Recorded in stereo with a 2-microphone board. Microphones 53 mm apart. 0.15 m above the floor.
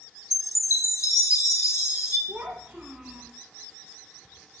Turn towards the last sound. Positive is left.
turn(degrees=-20)  # may be behind; listen again after turning